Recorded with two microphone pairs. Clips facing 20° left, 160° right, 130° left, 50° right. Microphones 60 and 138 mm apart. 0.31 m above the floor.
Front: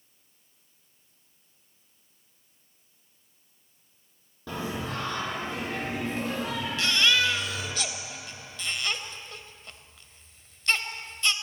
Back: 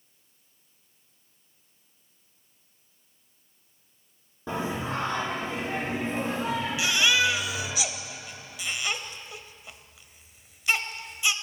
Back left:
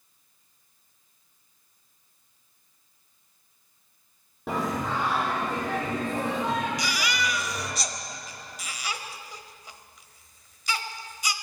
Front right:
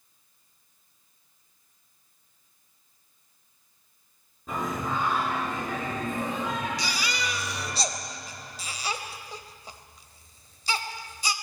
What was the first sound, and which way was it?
Singing, 130° left.